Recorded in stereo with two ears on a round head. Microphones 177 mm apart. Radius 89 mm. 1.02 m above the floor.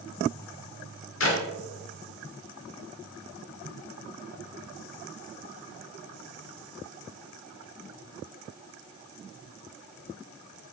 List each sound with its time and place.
1.2 s a clap: 65° left (ahead or behind), 2 m